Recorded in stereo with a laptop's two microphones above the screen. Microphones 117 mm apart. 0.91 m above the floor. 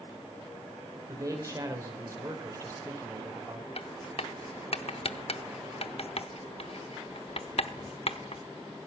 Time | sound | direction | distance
1.1 | a man speaking | 30° right (ahead or behind) | 3 m
3.8 | writing | 60° left (ahead or behind) | 0.9 m